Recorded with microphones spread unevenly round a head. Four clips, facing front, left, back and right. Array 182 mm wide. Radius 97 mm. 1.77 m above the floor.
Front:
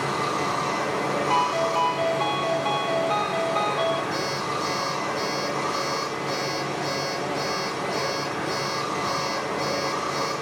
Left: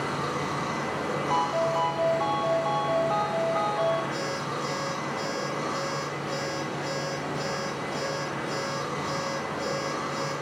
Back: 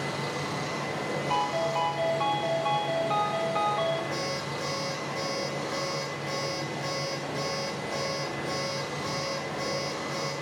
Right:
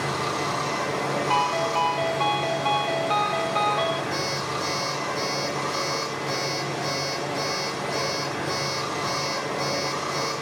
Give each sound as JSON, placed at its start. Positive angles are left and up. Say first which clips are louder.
{"t": 0.0, "sound": "running water", "louder": "right 3 dB, front 7 dB", "azimuth_deg": -30, "distance_m": 2.5}
{"t": 1.3, "sound": "a ringtone", "louder": "right 1 dB, front 4 dB", "azimuth_deg": -70, "distance_m": 1.2}
{"t": 4.1, "sound": "an alarm clock", "louder": "right 2 dB, front 5 dB", "azimuth_deg": -150, "distance_m": 5.0}